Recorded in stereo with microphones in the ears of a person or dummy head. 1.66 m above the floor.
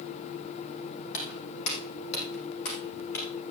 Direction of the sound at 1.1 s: 70° left (ahead or behind).